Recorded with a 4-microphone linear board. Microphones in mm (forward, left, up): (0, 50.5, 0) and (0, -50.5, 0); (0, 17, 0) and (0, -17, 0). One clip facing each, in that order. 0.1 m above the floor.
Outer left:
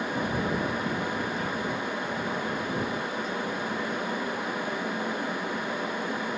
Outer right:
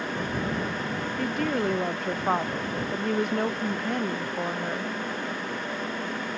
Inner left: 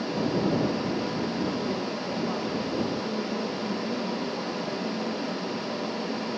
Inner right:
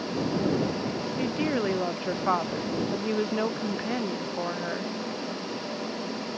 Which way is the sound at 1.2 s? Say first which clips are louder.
Outer right 4 dB, inner right 2 dB; 65° right (ahead or behind).